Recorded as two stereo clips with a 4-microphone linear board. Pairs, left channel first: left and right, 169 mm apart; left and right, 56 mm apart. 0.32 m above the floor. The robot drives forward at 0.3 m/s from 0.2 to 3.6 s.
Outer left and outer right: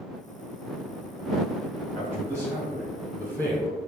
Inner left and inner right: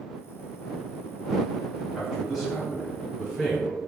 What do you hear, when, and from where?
1.9 s a man speaking: 15° right (ahead or behind), 2.0 m; by 3.8 s 20° right (ahead or behind), 1.7 m